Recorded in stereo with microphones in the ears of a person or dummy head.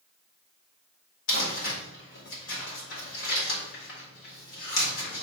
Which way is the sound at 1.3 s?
75° left (ahead or behind).